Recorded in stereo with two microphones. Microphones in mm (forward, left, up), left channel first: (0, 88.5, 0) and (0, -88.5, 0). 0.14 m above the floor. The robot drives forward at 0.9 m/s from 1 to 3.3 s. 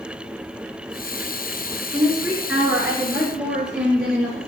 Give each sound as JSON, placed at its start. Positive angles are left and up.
{"t": 1.9, "sound": "a woman speaking", "side_deg": -5, "distance_m": 1.4}